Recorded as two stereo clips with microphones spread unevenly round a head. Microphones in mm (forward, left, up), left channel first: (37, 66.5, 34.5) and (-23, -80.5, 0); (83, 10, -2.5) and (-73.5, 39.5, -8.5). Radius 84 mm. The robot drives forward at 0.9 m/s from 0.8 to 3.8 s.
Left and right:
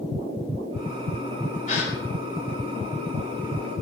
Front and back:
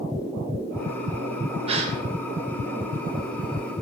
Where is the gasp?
115° left, 4 m; by 1.9 s 120° left, 4 m.